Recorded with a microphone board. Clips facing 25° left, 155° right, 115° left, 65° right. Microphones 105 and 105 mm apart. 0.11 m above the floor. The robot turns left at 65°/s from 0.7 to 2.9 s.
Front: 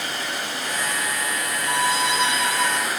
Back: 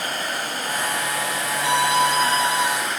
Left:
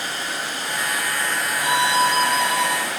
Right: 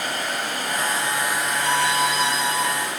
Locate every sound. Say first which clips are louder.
0.0 s running water: back 2 dB, right 2 dB; 110° right, 3.5 m; by 3.0 s 110° left, 3.5 m
1.6 s a violin: back 4 dB, left 3 dB; 160° right, 1.3 m; by 2.8 s 125° left, 1.3 m